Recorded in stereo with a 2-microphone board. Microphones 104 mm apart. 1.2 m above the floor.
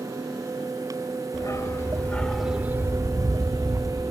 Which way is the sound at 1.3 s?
35° left (ahead or behind).